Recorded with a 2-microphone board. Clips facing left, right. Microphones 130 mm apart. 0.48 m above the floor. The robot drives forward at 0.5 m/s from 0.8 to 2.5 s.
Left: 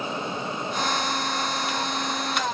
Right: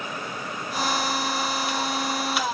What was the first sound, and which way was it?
Only background noise.